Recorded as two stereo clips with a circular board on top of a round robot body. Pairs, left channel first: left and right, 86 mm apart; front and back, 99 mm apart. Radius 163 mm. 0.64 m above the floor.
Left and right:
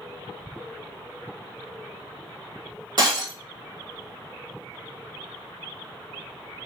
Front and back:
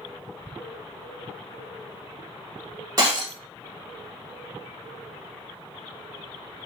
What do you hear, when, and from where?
3.0 s breaking glass: 125° right, 1.9 m